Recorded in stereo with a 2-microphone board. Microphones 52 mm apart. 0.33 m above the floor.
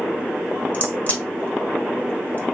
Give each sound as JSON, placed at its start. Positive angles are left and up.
{"t": 0.7, "sound": "a crack", "side_deg": 30, "distance_m": 1.7}